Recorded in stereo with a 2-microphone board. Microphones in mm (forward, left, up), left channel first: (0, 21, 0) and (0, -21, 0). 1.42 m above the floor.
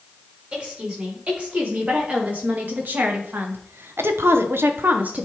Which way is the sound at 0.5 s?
30° right (ahead or behind).